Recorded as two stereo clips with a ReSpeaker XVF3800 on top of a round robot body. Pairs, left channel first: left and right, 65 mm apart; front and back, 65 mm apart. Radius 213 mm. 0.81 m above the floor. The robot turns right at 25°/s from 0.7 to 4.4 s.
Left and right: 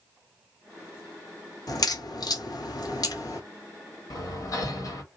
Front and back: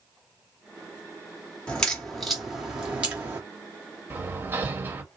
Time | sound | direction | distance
1.7 | a crack | 75° left | 1.6 m
4.1 | hammering | 115° left | 1.7 m